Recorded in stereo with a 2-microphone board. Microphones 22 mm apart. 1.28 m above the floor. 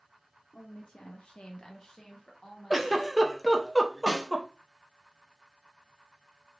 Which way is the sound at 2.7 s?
Centre (ahead or behind).